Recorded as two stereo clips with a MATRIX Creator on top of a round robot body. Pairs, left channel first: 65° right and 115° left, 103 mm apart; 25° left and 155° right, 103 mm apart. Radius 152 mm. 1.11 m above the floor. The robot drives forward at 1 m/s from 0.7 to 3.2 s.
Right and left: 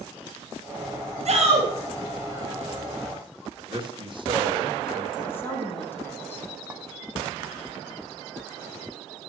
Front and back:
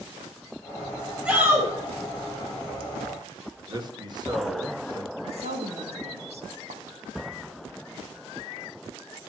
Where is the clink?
170° right, 1.3 m.